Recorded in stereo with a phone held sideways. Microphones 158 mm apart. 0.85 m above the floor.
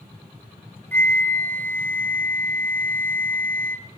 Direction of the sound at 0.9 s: 15° left (ahead or behind).